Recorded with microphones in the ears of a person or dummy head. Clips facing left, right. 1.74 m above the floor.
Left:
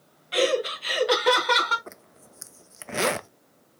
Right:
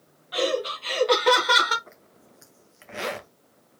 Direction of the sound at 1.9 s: 55° left (ahead or behind).